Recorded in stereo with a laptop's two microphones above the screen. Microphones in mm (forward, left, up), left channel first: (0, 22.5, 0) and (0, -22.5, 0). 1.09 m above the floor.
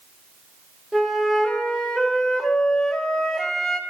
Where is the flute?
Centre (ahead or behind), 2 m.